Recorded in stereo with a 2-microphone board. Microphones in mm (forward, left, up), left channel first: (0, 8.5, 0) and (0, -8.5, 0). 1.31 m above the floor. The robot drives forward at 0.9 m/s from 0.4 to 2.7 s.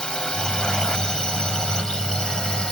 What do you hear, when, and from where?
0.0 s a drone: 55° left (ahead or behind); by 2.7 s 60° left (ahead or behind)